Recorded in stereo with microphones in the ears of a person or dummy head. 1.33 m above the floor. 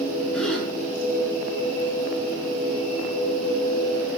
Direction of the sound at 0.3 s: 5° left (ahead or behind).